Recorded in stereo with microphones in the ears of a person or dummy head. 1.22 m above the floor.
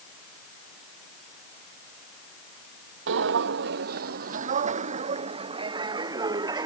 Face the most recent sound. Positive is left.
turn(degrees=-25)  # may be behind; listen again after turning